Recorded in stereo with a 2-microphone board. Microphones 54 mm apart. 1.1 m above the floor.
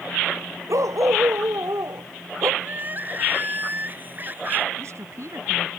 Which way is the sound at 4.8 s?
65° right (ahead or behind).